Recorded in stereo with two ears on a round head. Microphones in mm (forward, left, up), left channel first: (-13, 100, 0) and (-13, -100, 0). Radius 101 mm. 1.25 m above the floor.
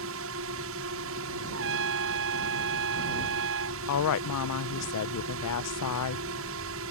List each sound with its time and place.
0.0 s a drone: 65° right (ahead or behind)
1.5 s a trumpet: 65° right (ahead or behind)
3.9 s a woman speaking: 80° left